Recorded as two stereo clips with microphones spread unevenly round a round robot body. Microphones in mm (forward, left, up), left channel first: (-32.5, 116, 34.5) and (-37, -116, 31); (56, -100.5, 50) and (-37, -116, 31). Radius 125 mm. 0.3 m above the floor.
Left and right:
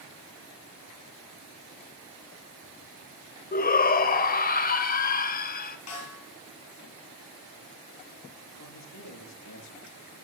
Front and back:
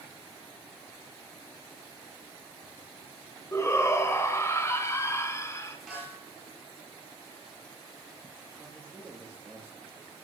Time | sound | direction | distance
3.5 | a shout | 75° left | 1.2 m
5.9 | a snare drum | 100° left | 9.5 m
8.6 | a man speaking | 90° left | 7 m